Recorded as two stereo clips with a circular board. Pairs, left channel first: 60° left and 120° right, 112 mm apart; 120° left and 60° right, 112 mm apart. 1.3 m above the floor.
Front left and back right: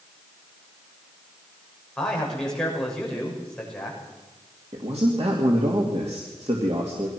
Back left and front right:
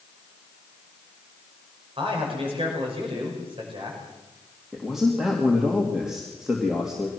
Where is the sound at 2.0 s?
25° right, 6 m.